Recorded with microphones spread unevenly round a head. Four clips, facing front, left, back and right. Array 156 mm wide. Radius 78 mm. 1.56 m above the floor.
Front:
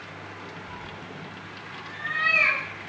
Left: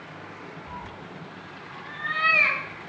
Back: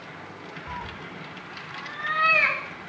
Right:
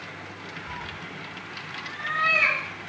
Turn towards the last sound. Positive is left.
turn(degrees=-175)